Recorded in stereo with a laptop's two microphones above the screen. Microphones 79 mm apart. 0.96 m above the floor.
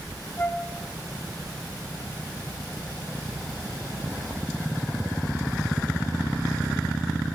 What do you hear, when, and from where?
0.4 s a flute: 25° left (ahead or behind), 7 m